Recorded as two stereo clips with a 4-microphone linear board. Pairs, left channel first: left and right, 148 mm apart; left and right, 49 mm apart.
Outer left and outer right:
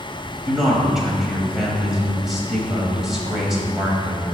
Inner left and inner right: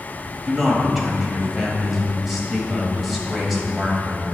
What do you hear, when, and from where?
0.5 s a man speaking: 5° right (ahead or behind), 1.4 m